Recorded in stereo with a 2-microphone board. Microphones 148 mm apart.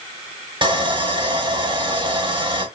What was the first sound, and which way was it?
Sawing, 35° right (ahead or behind).